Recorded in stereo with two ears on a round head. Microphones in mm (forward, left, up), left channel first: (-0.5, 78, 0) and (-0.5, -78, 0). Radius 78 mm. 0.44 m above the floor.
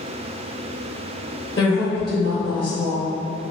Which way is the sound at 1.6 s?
25° left (ahead or behind).